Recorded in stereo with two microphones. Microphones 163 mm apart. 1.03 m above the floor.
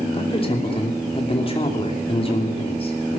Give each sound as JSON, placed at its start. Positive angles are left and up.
{"t": 0.1, "sound": "a man speaking", "side_deg": 35, "distance_m": 3.0}